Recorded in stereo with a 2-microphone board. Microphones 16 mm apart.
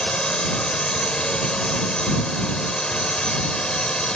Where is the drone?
55° left (ahead or behind).